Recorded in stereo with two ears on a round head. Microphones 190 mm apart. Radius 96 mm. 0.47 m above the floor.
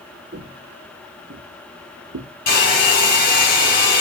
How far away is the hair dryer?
About 5.5 m.